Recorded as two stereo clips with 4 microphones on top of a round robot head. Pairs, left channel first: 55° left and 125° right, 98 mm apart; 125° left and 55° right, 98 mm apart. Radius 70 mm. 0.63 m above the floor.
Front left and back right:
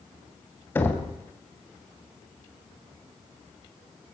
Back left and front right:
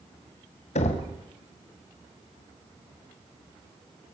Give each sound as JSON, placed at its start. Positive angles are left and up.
{"t": 0.8, "sound": "knocking", "azimuth_deg": 125, "distance_m": 2.5}